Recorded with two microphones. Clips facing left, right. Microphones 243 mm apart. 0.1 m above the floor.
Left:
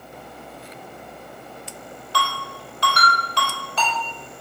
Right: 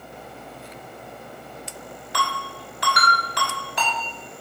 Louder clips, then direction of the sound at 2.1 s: Left 2 dB; 15° right (ahead or behind).